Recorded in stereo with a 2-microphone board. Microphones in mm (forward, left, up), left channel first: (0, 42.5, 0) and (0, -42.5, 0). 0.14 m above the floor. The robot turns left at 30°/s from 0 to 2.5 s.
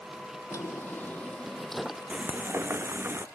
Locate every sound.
0.5 s a drawer: 40° left; by 2.2 s 10° right
2.1 s frying: 15° right (ahead or behind); by 3.3 s 25° right (ahead or behind)